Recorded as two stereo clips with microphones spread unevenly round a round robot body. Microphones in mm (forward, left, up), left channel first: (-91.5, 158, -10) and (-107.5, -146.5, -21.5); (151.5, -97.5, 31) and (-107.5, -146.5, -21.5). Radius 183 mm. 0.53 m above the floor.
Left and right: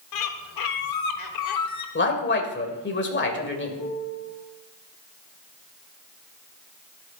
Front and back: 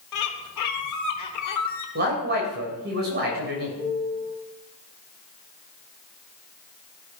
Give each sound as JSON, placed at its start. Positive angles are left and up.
{"t": 0.1, "sound": "a bird", "azimuth_deg": 55, "distance_m": 1.2}
{"t": 1.9, "sound": "a man speaking", "azimuth_deg": 140, "distance_m": 3.0}
{"t": 3.8, "sound": "a piano", "azimuth_deg": 110, "distance_m": 3.0}